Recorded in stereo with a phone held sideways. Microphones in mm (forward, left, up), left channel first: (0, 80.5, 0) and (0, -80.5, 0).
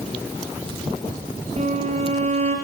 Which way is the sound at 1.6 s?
40° right (ahead or behind).